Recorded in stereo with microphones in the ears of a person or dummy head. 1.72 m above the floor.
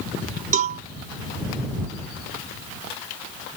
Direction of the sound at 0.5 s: 45° right (ahead or behind).